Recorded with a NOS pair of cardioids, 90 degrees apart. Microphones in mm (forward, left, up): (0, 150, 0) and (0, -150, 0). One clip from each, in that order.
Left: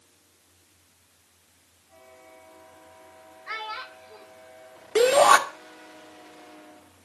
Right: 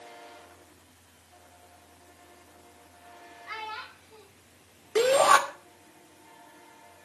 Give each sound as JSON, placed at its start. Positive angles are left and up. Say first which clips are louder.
{"t": 3.5, "sound": "a child speaking", "louder": "left 4 dB", "azimuth_deg": 50, "distance_m": 4.0}
{"t": 5.0, "sound": "a shout", "louder": "left 3 dB", "azimuth_deg": 30, "distance_m": 2.5}